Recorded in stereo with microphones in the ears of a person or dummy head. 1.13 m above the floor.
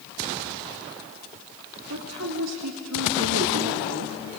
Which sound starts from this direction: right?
A woman speaking, at 1.9 s.